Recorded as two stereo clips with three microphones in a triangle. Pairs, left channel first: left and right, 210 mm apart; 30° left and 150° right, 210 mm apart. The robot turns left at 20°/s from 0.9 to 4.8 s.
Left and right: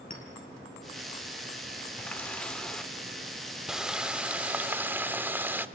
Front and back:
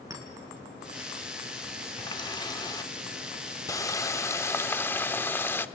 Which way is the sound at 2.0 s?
25° left.